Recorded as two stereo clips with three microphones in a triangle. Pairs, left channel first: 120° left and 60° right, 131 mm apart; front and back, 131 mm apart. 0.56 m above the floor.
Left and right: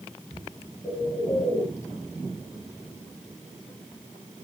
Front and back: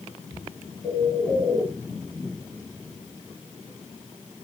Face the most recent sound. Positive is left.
turn(degrees=80)